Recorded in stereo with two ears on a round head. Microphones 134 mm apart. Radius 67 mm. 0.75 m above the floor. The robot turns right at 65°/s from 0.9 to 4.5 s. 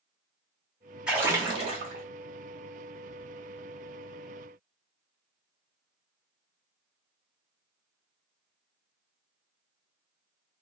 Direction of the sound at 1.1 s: 170° right.